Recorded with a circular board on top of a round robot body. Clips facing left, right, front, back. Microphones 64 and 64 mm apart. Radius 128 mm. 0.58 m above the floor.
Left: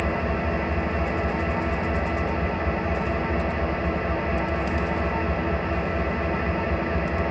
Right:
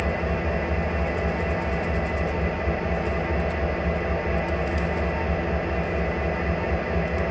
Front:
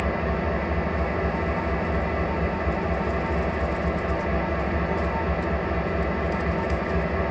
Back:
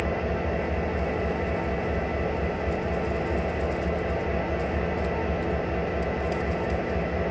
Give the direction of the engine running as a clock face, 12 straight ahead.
11 o'clock.